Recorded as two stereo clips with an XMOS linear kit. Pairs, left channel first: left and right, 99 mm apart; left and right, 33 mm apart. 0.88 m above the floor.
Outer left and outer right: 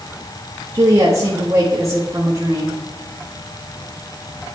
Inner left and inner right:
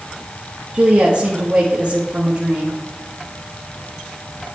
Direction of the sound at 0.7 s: 30° right (ahead or behind).